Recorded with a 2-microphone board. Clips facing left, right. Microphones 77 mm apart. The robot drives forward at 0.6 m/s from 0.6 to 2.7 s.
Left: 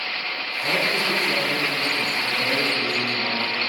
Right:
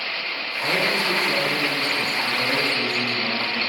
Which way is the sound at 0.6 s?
15° right (ahead or behind).